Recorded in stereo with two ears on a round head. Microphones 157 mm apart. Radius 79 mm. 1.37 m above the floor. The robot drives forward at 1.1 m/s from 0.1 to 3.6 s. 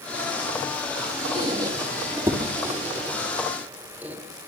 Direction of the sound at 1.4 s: 25° right (ahead or behind).